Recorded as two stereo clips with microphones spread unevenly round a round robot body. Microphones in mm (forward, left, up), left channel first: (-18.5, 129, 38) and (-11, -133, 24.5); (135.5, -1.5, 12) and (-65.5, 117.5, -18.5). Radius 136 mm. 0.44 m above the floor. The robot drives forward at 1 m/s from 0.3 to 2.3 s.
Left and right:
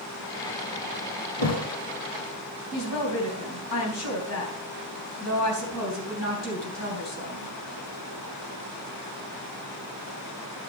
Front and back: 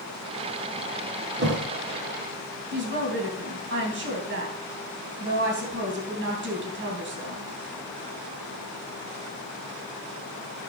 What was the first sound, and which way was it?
A thud, 105° left.